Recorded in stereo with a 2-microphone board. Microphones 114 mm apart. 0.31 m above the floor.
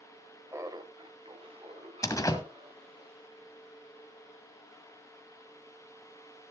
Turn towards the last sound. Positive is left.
turn(degrees=30)  # may be behind; listen again after turning